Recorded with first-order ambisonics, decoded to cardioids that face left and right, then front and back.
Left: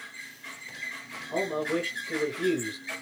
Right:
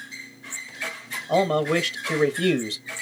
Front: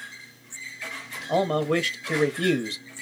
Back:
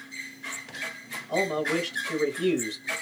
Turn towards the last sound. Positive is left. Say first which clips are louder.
# right 8 dB, front 3 dB
turn(degrees=-55)